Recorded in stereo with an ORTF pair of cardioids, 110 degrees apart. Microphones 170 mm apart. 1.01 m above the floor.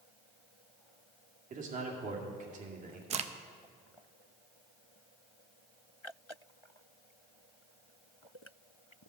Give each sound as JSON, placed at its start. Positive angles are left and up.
{"t": 1.5, "sound": "a man speaking", "azimuth_deg": -50, "distance_m": 2.0}
{"t": 3.1, "sound": "a crack", "azimuth_deg": -40, "distance_m": 0.6}